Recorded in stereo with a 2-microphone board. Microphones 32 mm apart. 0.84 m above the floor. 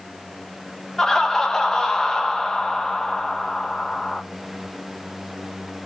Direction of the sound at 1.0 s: 15° left (ahead or behind).